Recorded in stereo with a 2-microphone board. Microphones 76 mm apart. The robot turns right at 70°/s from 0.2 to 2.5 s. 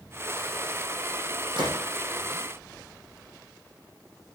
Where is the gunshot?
85° right, 7.5 m; by 1.8 s 65° right (ahead or behind), 7.5 m.